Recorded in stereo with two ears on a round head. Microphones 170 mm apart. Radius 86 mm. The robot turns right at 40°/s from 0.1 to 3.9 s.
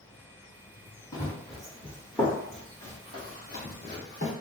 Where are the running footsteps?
15° left (ahead or behind), 1.4 m; by 4.3 s 60° left (ahead or behind), 2 m.